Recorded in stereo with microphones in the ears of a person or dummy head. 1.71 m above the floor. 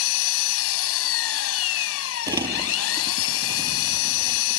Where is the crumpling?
20° right (ahead or behind).